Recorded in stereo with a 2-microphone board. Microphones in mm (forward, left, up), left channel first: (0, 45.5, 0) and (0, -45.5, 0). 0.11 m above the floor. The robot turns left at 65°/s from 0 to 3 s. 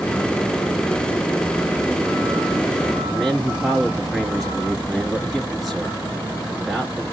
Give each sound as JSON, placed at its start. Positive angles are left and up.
{"t": 3.0, "sound": "a man speaking", "side_deg": 0, "distance_m": 1.5}